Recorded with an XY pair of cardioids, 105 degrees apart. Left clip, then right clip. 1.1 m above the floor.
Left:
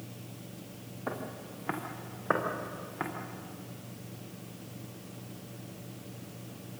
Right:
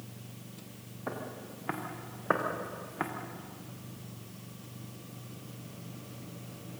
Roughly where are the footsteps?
Ahead.